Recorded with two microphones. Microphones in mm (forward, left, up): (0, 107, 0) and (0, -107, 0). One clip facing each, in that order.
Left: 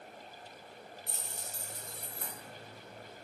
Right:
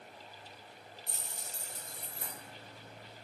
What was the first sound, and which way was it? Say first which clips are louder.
Keys jangling: left 2 dB; 60° left (ahead or behind).